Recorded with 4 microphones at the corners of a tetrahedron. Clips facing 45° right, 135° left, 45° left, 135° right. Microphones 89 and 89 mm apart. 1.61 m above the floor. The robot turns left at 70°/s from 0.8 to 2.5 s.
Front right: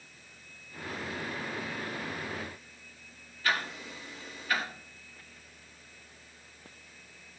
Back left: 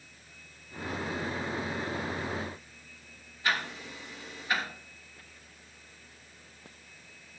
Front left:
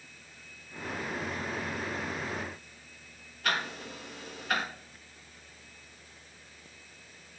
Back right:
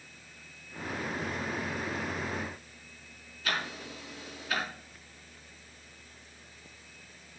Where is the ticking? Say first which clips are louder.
Even, front left 2 dB; 65° left, 3 m.